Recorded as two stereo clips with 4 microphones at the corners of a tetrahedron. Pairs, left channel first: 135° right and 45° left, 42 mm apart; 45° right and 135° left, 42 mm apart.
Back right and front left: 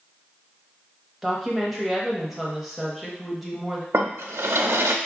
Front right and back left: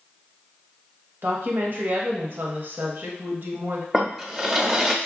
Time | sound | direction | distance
1.2 | a woman speaking | 135° left | 0.9 m
3.9 | a drawer | 55° left | 0.5 m